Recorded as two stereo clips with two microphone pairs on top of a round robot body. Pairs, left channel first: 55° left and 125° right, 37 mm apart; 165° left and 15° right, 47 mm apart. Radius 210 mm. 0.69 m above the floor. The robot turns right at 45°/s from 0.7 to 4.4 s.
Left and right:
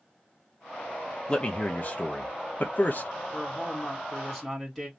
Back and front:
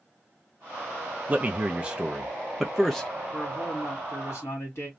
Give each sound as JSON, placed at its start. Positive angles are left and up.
{"t": 1.3, "sound": "a man speaking", "azimuth_deg": -5, "distance_m": 0.8}
{"t": 3.3, "sound": "a man speaking", "azimuth_deg": 105, "distance_m": 1.9}